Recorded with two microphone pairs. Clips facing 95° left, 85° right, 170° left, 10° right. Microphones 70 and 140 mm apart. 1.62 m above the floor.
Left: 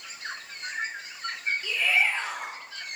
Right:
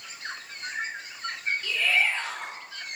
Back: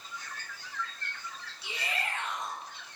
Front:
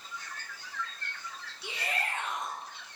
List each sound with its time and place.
1.6 s a shout: 20° left, 4.5 m